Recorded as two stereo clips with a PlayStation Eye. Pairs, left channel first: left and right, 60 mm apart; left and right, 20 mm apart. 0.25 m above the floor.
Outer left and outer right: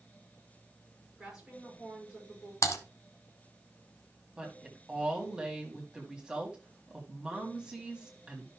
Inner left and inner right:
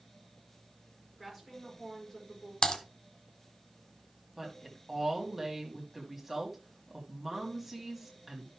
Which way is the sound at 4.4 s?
15° right (ahead or behind).